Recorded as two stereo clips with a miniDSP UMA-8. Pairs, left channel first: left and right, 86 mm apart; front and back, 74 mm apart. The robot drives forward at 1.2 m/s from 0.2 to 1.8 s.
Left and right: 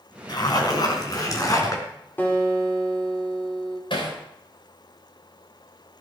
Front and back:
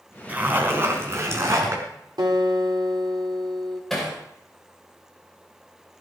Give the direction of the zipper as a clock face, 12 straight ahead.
8 o'clock.